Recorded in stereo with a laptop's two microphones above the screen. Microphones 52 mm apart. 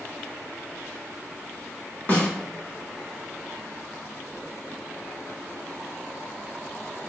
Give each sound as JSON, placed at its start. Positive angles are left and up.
{"t": 2.1, "sound": "a snare drum", "side_deg": 40, "distance_m": 1.0}